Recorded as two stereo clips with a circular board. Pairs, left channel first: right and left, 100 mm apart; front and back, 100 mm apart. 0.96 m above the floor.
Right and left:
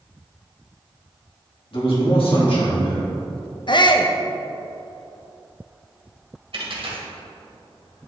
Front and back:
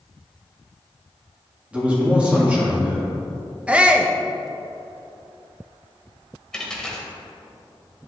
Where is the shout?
105° right, 0.6 m.